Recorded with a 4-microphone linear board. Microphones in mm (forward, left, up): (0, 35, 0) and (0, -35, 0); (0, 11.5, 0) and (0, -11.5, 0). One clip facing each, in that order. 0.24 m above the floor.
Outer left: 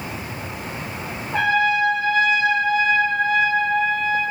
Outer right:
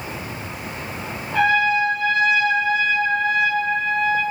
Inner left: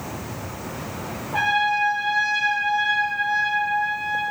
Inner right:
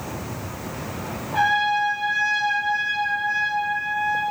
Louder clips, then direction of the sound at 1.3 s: Outer right 1 dB, inner right 1 dB; 20° left (ahead or behind).